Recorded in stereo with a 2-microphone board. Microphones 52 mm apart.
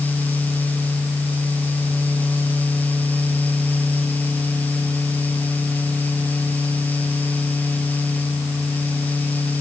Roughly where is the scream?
No scream in this recording.